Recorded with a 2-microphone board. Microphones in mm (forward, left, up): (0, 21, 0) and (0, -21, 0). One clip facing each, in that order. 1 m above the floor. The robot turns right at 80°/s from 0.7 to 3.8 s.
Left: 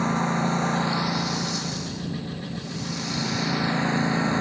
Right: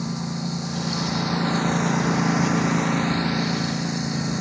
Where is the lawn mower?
140° left; by 4.4 s 25° left.